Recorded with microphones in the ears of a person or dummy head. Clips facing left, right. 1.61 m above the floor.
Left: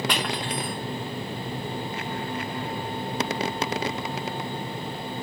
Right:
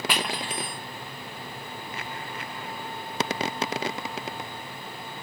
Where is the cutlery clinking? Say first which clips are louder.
Left 2 dB; 5° right (ahead or behind), 1.5 m.